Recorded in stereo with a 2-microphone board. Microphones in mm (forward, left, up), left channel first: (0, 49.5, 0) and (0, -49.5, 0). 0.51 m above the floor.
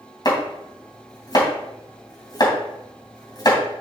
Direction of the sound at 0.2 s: 45° left (ahead or behind).